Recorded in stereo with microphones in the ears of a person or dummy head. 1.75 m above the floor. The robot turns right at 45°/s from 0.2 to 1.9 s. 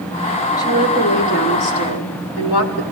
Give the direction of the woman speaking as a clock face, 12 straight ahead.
11 o'clock.